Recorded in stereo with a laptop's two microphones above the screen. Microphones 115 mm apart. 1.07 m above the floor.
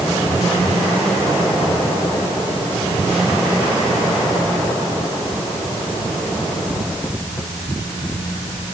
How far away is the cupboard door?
No cupboard door in this recording.